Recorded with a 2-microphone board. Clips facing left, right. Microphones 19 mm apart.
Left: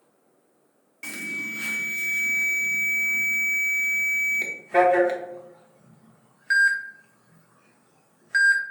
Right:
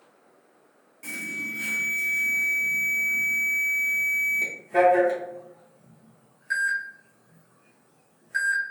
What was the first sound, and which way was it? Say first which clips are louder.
An alarm: left 1 dB; 40° left (ahead or behind).